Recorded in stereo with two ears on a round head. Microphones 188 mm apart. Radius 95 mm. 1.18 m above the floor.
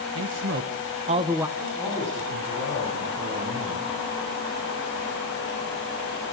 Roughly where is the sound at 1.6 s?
Right.